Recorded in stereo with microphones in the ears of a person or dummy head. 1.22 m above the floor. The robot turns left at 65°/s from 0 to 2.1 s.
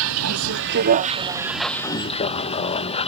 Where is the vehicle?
70° right; by 3.1 s 150° left.